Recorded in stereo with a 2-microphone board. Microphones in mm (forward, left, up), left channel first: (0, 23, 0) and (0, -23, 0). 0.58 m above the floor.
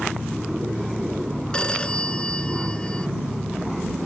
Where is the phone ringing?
15° left (ahead or behind).